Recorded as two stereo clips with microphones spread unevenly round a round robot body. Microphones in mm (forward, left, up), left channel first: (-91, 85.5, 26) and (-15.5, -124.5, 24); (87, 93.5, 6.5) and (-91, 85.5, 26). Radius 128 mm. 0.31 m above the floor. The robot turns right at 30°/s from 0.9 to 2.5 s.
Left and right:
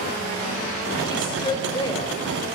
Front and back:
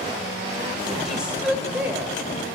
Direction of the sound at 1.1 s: 85° left.